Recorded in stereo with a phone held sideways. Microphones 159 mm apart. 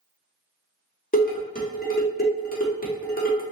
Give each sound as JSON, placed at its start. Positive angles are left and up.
{"t": 1.1, "sound": "dishes clattering", "side_deg": 70, "distance_m": 1.4}